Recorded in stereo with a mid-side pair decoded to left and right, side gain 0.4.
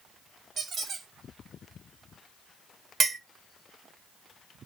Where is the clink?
55° right, 0.8 m.